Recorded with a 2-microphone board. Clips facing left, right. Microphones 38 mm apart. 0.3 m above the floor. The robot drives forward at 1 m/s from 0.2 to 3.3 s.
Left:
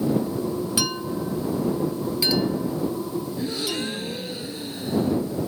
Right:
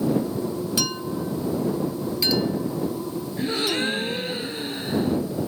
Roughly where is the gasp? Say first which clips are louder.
Right 8 dB; right.